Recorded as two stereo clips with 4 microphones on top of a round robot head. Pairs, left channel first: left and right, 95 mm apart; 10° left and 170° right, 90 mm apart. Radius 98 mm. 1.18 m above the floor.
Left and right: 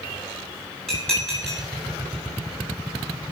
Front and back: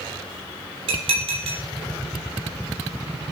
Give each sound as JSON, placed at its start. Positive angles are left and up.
{"t": 0.9, "sound": "dishes clattering", "azimuth_deg": 175, "distance_m": 3.0}